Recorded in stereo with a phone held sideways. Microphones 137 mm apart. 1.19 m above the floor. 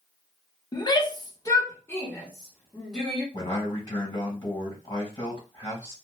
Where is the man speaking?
30° left (ahead or behind), 1.9 m.